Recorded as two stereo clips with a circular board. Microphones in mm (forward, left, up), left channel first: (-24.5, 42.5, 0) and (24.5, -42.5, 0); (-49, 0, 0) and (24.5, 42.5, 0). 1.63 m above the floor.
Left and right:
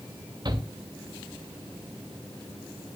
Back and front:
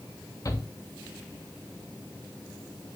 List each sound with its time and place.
0.5 s a shout: 105° right, 2.5 m